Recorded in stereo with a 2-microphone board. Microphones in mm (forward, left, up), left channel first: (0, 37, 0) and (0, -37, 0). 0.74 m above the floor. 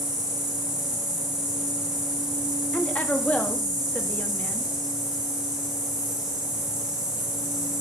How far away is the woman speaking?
About 1.0 m.